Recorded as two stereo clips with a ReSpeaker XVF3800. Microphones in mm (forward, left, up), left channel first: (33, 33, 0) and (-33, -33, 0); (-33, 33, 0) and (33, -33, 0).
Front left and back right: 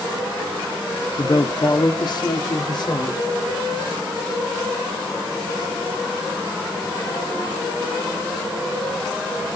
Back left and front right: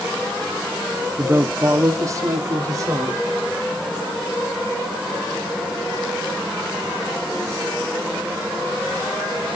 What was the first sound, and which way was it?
A woman speaking, 15° left.